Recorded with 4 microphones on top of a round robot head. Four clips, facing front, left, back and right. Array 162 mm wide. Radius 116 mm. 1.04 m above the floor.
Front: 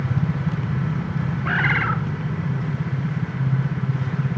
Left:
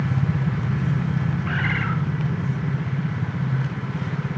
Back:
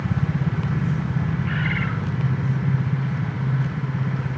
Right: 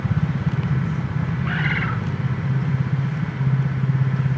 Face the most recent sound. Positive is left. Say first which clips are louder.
# right 1 dB, front 4 dB
turn(degrees=-5)